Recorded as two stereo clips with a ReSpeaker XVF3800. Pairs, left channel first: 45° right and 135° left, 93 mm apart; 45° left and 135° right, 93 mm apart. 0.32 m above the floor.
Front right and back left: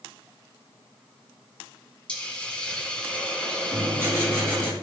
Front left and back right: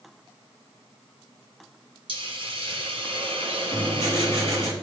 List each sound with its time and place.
2.1 s a hiss: 120° right, 1.7 m
3.7 s writing: 165° right, 3.5 m